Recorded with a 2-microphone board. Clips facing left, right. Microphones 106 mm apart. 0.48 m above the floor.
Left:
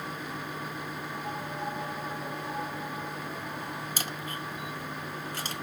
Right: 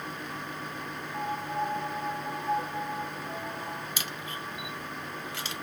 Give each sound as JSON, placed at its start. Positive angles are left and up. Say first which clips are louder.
{"t": 1.1, "sound": "a piano", "louder": "right 7 dB", "side_deg": -60, "distance_m": 1.6}
{"t": 4.0, "sound": "a camera shutter", "louder": "left 1 dB", "side_deg": 40, "distance_m": 0.5}